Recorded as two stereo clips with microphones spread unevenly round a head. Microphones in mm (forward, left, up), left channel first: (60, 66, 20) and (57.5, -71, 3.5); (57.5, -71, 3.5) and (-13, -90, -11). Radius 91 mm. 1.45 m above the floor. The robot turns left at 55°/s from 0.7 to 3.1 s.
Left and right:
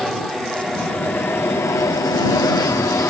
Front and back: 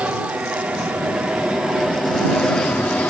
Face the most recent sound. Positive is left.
turn(degrees=55)